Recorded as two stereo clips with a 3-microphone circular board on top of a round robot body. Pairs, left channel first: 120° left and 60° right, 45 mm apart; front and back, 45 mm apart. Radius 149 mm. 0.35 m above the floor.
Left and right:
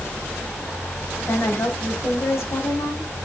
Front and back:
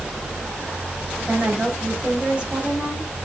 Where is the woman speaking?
115° left, 3.5 m.